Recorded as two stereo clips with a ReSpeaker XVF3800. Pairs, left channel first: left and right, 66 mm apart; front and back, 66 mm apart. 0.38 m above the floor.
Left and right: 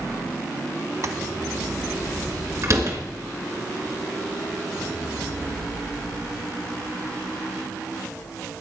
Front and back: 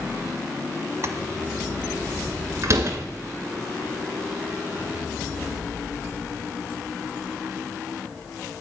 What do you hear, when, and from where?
1.0 s tapping: 130° right, 1.5 m
2.6 s a door slam: 135° right, 3 m